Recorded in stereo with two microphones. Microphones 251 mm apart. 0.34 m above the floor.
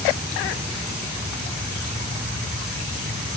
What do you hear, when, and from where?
Only background noise.